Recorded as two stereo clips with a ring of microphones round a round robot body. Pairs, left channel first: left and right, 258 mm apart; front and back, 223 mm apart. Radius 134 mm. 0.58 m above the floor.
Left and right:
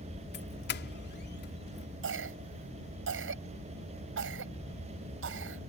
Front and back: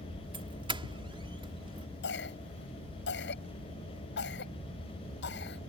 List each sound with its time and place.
0.3 s a doorbell: 120° left
2.0 s a cough: 45° right